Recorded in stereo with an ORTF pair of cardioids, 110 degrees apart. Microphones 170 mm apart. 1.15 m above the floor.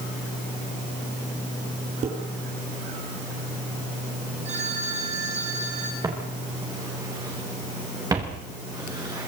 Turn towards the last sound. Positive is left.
turn(degrees=-20)